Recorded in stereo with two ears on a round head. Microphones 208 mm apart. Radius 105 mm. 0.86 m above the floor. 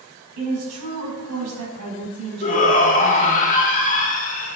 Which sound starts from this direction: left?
A shout, at 2.4 s.